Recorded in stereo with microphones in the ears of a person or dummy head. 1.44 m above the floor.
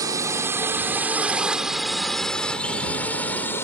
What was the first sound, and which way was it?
A drone, 15° right (ahead or behind).